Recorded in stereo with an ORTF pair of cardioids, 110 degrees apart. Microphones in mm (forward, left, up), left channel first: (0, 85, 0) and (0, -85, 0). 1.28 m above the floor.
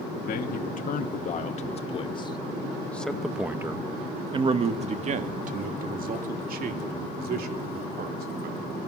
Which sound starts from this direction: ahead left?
A man speaking, at 0.3 s.